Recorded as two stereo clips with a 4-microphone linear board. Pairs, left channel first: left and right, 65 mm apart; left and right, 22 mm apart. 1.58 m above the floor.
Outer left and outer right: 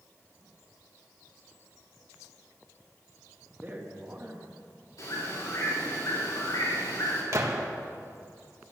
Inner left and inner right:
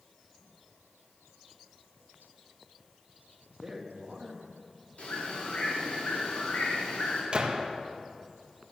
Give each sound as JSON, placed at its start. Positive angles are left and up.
{"t": 3.6, "sound": "a man speaking", "side_deg": -30, "distance_m": 2.5}
{"t": 5.0, "sound": "a bird", "side_deg": 65, "distance_m": 5.5}
{"t": 7.3, "sound": "a gunshot", "side_deg": -50, "distance_m": 1.7}